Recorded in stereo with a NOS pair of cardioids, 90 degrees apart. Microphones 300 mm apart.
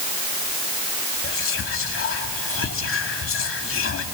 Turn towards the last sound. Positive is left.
turn(degrees=45)